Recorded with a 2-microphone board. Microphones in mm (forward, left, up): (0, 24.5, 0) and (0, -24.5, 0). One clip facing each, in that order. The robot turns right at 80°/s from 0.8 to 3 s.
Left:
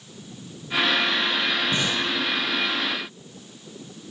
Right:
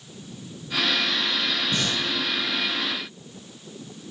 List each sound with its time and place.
1.7 s breathing: 30° left (ahead or behind), 3.5 m; by 2.0 s centre (ahead or behind), 3.5 m